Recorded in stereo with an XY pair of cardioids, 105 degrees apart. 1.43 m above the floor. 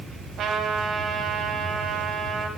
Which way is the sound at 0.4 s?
65° right.